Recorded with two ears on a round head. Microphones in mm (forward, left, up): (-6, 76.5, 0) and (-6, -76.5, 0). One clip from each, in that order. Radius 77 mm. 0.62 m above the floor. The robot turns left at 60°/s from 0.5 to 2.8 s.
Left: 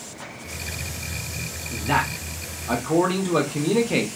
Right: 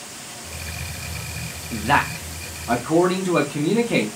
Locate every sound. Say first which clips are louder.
1.7 s a man speaking: right 4 dB; 120° right, 0.8 m; by 4.1 s 175° left, 0.8 m